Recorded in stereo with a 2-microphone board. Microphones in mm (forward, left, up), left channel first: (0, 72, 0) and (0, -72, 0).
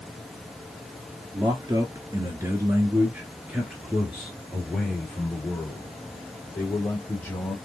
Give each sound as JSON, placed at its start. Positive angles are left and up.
{"t": 1.3, "sound": "a man speaking", "side_deg": -25, "distance_m": 1.3}